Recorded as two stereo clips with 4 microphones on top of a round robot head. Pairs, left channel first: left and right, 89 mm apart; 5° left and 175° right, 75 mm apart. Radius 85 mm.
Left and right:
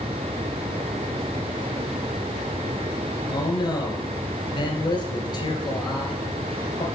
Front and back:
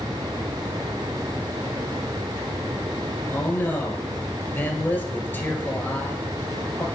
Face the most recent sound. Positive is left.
turn(degrees=60)